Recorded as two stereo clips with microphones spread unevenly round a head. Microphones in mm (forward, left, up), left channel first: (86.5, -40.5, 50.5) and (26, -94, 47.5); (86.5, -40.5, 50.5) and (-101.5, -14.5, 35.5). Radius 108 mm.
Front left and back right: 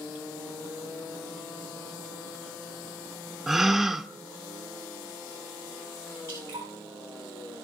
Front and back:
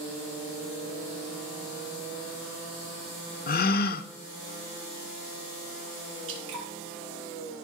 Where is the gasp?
50° right, 0.6 m.